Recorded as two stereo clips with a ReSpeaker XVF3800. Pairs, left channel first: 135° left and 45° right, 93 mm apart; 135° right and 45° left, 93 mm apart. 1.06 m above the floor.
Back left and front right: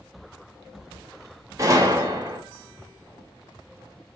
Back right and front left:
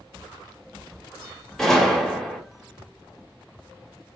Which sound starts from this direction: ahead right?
A gunshot, at 1.6 s.